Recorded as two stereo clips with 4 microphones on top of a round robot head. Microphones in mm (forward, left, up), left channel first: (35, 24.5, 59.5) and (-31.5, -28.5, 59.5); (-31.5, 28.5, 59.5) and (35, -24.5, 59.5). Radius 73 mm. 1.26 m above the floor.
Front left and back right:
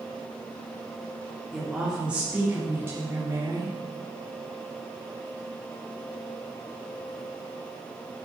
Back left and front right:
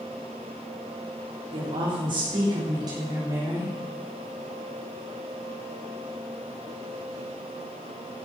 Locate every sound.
1.5 s a woman speaking: 55° right, 3.5 m; by 3.7 s 90° right, 4 m